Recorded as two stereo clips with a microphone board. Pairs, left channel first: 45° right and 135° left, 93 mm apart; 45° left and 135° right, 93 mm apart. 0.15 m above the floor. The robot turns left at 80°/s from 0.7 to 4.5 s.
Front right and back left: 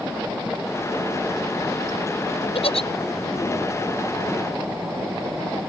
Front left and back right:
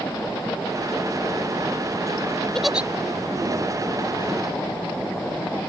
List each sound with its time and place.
2.5 s a giggle: 35° right; by 2.9 s 60° right